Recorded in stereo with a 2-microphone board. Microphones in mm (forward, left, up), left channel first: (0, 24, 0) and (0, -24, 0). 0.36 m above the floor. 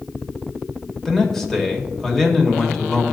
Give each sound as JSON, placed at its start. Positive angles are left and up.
{"t": 1.1, "sound": "a man speaking", "side_deg": 10, "distance_m": 0.9}